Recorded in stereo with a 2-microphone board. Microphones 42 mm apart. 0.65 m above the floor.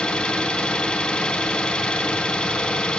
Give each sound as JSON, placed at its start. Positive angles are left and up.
{"t": 0.0, "sound": "an engine running", "side_deg": 20, "distance_m": 2.0}